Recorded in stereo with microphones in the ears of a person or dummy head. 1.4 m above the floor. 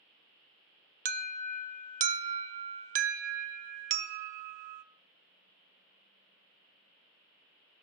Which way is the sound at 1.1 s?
45° right (ahead or behind).